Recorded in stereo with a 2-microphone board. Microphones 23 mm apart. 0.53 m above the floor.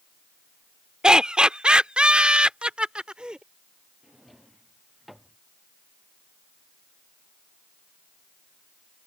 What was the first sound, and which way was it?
Laughter, 40° right (ahead or behind).